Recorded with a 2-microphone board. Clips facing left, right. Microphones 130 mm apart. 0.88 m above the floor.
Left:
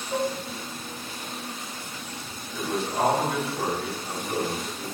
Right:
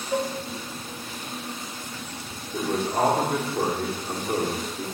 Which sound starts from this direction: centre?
Dishes clattering, at 0.1 s.